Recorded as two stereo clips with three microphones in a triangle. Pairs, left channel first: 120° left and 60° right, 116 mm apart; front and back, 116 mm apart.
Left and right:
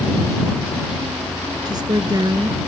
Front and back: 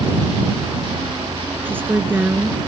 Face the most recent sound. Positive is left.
turn(degrees=-110)